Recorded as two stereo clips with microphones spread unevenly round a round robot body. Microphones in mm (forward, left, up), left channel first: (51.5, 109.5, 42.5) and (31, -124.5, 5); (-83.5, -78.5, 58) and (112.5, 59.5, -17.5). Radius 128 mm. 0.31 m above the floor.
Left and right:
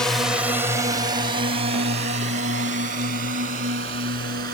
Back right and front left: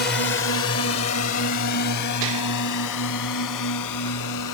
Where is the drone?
170° right; by 4.5 s 145° right.